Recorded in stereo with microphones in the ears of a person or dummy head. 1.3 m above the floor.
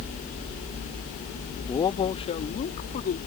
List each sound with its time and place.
1.7 s a man speaking: 20° left (ahead or behind); by 3.2 s 45° left (ahead or behind)